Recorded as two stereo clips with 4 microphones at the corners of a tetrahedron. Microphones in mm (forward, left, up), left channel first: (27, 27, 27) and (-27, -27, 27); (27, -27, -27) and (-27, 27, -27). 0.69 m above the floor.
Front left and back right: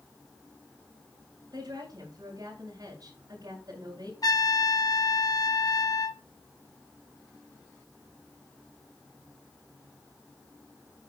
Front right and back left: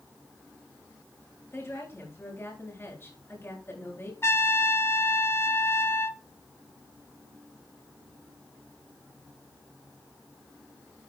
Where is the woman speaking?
100° right, 8 m.